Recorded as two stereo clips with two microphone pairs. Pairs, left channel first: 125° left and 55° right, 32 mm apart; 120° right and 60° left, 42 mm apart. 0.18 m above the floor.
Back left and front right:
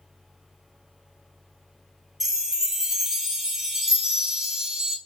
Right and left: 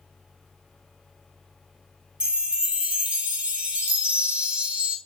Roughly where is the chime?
Ahead.